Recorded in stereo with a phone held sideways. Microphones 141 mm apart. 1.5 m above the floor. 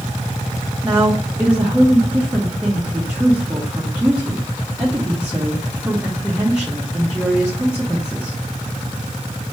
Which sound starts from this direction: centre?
A woman speaking, at 0.8 s.